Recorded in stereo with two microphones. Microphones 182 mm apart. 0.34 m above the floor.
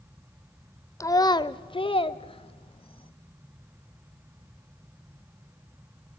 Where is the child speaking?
20° left (ahead or behind), 0.5 m; by 3.1 s 30° left (ahead or behind), 1.2 m.